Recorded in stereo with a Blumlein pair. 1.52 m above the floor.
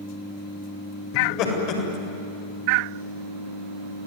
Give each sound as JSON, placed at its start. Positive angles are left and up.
{"t": 1.1, "sound": "laughter", "azimuth_deg": 40, "distance_m": 8.0}